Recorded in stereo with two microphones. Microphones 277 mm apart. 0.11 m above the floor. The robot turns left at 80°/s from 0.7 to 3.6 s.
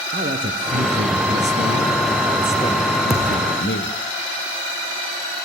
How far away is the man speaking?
About 1.9 m.